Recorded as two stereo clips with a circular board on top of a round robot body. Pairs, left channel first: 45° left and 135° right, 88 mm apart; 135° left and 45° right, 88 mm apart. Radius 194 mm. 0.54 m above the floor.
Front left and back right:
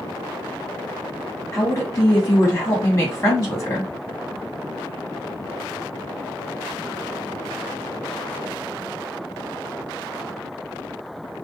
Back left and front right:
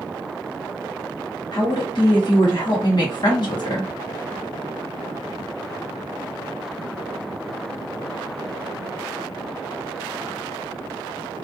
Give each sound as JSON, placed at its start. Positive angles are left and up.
{"t": 1.5, "sound": "a woman speaking", "azimuth_deg": 110, "distance_m": 1.4}